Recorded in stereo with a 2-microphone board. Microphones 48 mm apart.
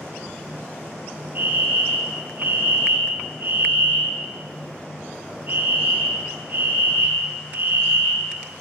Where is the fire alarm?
35° right (ahead or behind), 5 m.